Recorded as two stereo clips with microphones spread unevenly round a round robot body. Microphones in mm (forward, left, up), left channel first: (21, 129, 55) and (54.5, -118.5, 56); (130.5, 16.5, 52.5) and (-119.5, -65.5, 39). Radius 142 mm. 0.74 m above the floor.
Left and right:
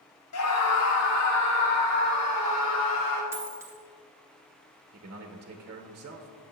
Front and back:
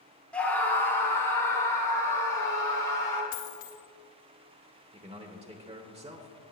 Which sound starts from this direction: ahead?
A dropped coin, at 3.3 s.